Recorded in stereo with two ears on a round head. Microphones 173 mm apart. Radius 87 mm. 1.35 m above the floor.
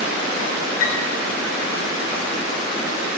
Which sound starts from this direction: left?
A piano, at 0.8 s.